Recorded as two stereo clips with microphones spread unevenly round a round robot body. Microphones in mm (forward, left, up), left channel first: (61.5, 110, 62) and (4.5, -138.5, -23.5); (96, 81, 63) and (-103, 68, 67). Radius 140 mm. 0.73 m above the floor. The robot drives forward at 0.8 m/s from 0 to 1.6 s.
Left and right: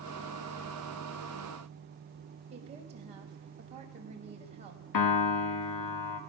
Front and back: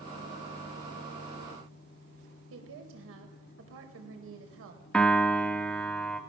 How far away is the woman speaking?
About 4.5 m.